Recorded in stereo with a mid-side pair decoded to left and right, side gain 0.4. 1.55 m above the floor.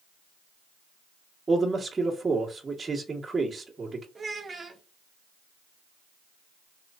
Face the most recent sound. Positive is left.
turn(degrees=-40)